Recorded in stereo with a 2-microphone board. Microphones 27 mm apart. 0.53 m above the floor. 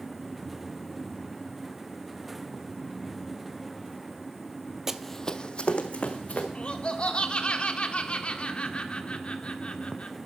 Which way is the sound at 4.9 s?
15° right (ahead or behind).